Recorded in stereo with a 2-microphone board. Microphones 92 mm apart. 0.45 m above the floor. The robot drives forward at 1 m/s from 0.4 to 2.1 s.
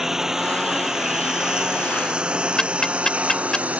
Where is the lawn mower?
5° right (ahead or behind); by 3.8 s 15° right (ahead or behind).